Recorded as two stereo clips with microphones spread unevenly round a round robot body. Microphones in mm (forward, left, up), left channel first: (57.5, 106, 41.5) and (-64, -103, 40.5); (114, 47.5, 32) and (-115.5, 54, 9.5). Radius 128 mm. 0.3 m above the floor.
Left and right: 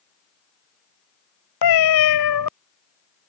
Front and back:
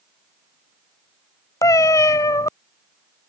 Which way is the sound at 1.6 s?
70° left.